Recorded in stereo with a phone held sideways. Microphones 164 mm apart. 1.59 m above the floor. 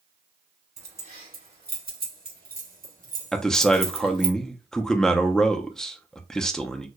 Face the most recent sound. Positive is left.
turn(degrees=5)  # may be behind; listen again after turning